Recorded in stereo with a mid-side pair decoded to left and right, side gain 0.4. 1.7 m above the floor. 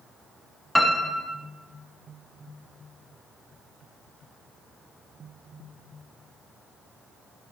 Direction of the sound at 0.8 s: 5° left.